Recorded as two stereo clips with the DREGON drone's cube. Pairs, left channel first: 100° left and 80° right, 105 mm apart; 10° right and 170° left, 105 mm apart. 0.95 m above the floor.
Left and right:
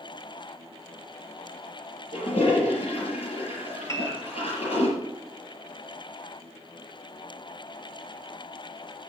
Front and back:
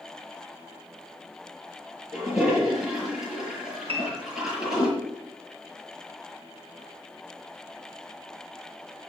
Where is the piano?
160° left, 1.5 m.